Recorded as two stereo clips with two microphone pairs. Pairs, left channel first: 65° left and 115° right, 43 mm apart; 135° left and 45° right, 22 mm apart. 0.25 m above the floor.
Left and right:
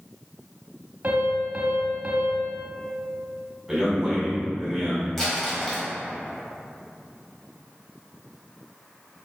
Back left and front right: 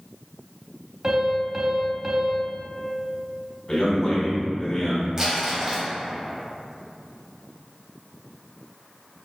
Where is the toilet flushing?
No toilet flushing in this recording.